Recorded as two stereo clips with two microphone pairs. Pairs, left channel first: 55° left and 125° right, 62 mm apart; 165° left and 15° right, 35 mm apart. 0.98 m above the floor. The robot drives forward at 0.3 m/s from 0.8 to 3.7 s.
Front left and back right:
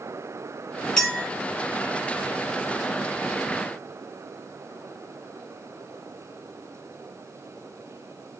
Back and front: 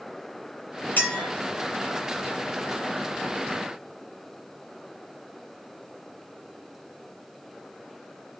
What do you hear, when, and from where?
1.0 s a clink: 130° left, 1.4 m